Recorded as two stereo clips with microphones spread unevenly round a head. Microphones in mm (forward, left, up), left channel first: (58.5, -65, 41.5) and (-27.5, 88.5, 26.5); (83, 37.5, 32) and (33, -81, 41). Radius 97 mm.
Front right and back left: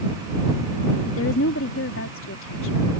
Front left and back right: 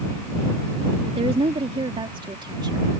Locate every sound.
1.1 s a woman speaking: 70° right; by 2.9 s 55° right